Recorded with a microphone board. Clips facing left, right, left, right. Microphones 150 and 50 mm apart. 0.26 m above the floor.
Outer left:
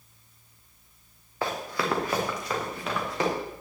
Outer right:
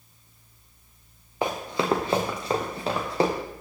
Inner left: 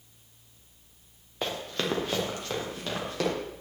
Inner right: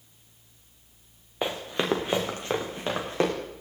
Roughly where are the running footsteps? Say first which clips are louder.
Outer right 3 dB, inner right 3 dB; centre.